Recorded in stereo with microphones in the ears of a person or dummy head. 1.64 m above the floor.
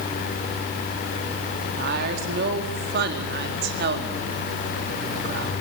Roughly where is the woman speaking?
Right.